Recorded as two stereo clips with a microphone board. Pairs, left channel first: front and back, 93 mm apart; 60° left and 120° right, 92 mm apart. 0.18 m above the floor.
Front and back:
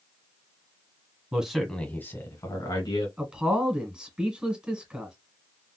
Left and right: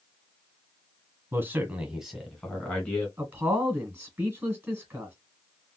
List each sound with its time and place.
1.3 s a man speaking: 120° right, 1.3 m; by 3.1 s 15° right, 2.0 m
3.2 s a man speaking: 115° right, 1.5 m